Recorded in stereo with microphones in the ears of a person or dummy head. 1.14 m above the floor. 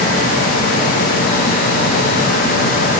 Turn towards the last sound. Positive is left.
No sound to turn to.